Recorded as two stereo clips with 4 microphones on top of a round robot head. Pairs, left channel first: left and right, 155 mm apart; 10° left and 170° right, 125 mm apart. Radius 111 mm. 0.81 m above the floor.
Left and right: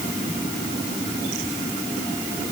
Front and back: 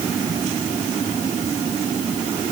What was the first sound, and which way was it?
Only background noise.